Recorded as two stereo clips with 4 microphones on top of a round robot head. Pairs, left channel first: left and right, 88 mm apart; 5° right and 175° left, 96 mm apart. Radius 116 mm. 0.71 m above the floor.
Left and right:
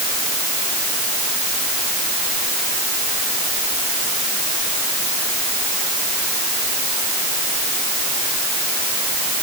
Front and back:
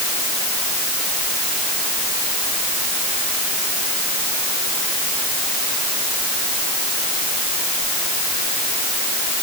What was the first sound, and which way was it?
Only background noise.